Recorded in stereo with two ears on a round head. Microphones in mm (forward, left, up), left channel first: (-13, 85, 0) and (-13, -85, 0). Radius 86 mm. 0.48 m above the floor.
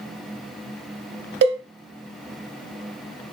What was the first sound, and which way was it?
A cowbell, 60° right (ahead or behind).